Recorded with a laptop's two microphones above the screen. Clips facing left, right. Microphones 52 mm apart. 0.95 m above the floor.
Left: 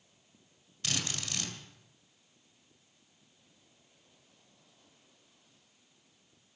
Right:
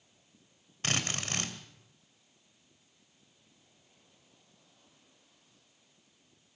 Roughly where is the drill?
Right.